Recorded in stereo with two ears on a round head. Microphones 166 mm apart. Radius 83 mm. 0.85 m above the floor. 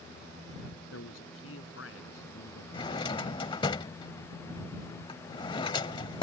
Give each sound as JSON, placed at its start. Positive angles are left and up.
{"t": 0.9, "sound": "a man speaking", "side_deg": 80}
{"t": 2.7, "sound": "a drawer", "side_deg": 25}